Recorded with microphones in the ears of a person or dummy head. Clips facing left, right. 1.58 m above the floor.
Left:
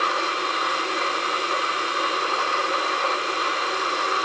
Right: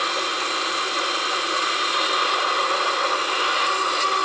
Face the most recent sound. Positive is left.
No sound to turn to.